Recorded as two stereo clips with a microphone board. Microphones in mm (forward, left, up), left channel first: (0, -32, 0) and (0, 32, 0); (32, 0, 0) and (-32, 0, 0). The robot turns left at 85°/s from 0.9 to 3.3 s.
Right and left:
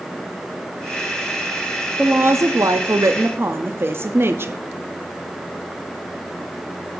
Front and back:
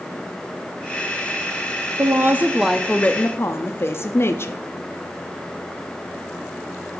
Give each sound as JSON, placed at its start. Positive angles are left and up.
{"t": 2.0, "sound": "a woman speaking", "azimuth_deg": 155, "distance_m": 0.5}